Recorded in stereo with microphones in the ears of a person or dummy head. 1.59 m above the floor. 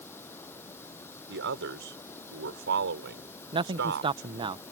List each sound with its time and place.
0.0 s running water: 20° left (ahead or behind)
1.3 s a man speaking: 70° right (ahead or behind)
3.5 s a man speaking: 30° right (ahead or behind)